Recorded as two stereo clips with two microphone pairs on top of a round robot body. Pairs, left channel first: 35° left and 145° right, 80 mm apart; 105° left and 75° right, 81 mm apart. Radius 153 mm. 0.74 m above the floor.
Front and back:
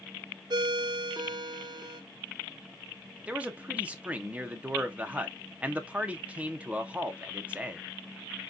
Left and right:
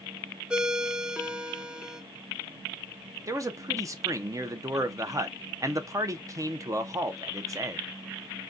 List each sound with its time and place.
0.5 s a ringtone: 150° right, 0.6 m
3.3 s a man speaking: 85° right, 0.8 m